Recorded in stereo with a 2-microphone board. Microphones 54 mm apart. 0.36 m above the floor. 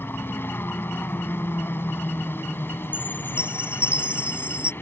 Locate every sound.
0.0 s a helicopter: 45° left (ahead or behind)
2.9 s a chime: 25° right (ahead or behind)